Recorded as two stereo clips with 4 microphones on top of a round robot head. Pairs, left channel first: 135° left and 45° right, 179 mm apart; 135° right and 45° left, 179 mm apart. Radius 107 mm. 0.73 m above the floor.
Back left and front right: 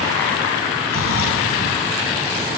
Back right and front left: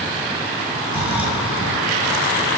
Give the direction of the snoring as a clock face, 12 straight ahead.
8 o'clock.